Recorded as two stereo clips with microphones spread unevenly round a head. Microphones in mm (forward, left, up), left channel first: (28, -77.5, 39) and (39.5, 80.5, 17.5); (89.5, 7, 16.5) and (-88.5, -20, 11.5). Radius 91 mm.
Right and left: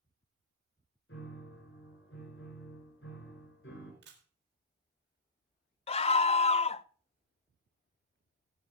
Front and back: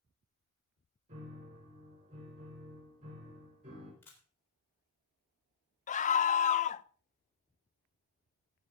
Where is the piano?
125° right, 5 m.